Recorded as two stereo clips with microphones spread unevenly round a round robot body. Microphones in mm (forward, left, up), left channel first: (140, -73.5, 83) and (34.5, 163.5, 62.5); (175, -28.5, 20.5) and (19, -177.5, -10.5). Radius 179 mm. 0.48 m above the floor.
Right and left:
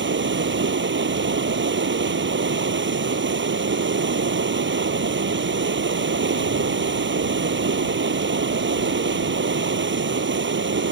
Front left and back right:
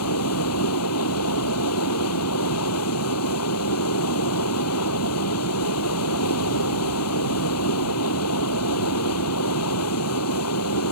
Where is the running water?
70° left.